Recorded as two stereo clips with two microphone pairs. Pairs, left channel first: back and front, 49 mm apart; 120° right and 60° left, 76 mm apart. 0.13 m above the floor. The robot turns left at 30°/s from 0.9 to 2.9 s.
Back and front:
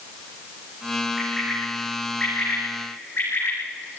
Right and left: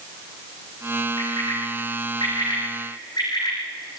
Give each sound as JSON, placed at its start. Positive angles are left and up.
{"t": 1.2, "sound": "a bird", "azimuth_deg": -85, "distance_m": 8.5}